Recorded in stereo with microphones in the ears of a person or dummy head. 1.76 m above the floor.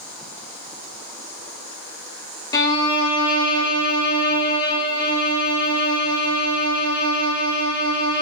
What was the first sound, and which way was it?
A violin, 20° left (ahead or behind).